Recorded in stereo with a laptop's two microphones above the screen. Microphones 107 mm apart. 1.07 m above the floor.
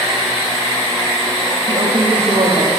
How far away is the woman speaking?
About 1.4 m.